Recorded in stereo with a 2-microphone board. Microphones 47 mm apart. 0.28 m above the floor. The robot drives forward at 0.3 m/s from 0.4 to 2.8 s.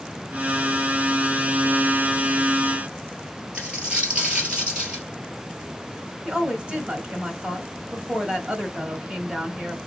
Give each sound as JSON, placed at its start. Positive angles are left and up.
{"t": 3.5, "sound": "a dropped coin", "side_deg": -20, "distance_m": 1.6}
{"t": 6.2, "sound": "a woman speaking", "side_deg": -25, "distance_m": 1.2}